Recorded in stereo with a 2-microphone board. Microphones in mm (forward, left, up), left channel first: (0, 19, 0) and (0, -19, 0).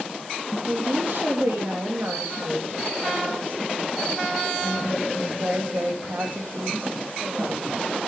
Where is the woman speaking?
70° right (ahead or behind), 3.5 m.